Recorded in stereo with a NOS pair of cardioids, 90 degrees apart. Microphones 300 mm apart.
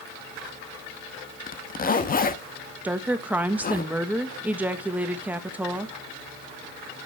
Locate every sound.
1.5 s a zipper: 30° left, 0.9 m
2.8 s a woman speaking: 5° right, 1.3 m